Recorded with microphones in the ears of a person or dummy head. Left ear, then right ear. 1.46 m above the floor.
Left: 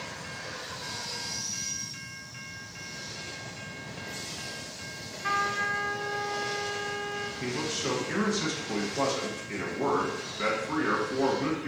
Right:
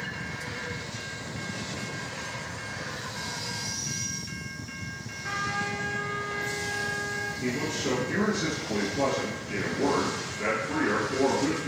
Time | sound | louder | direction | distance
5.2 | a trumpet | left 3 dB | 60° left (ahead or behind) | 0.8 m
7.4 | a man speaking | right 1 dB | 50° left (ahead or behind) | 1.5 m